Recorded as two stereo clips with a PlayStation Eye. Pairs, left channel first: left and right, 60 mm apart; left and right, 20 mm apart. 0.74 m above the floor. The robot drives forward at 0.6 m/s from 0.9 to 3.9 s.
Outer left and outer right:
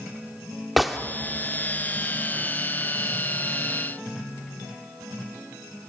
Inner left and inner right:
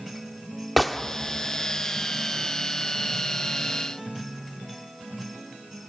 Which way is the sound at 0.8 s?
Centre (ahead or behind).